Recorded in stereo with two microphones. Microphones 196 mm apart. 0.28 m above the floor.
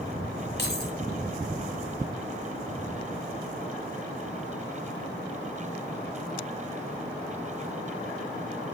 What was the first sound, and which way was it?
Keys jangling, 55° left (ahead or behind).